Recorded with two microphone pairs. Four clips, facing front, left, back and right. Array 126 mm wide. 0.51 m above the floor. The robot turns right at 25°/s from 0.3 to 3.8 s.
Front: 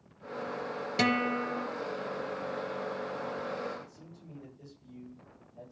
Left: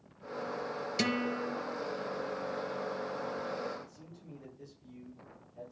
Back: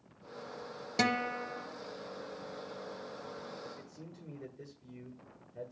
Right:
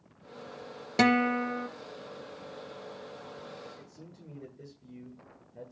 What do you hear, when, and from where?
1.0 s a guitar: 95° right, 1.0 m; by 1.7 s 80° right, 1.0 m
3.8 s a man speaking: 135° right, 9 m